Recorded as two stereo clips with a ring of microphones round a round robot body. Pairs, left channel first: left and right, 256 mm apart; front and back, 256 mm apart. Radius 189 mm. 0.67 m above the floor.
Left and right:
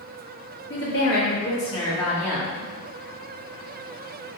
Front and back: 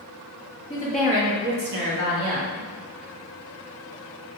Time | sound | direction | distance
0.7 | a woman speaking | 65° left | 0.9 m